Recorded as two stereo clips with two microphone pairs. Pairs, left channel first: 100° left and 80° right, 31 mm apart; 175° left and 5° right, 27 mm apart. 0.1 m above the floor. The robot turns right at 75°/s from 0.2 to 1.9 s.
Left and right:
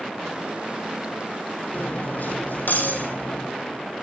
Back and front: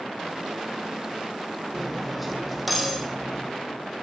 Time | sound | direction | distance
1.7 | cutlery clinking | 75° left | 2 m